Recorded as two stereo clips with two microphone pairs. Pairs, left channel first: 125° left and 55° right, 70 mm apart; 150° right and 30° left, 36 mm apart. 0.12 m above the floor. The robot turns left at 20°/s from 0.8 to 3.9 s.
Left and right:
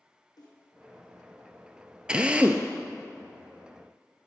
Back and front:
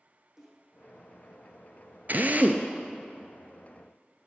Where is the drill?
15° left, 0.9 m; by 2.7 s 5° left, 0.9 m.